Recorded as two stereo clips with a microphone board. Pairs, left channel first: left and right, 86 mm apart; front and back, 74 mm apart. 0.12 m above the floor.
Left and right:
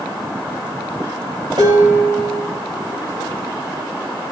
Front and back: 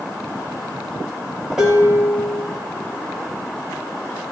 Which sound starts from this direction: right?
Dishes clattering, at 1.6 s.